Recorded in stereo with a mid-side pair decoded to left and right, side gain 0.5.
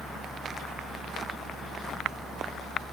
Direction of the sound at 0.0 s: 20° right.